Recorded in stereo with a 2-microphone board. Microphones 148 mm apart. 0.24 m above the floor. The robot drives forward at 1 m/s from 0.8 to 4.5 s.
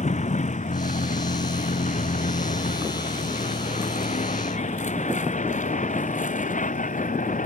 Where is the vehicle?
50° left (ahead or behind); by 7.5 s 60° left (ahead or behind).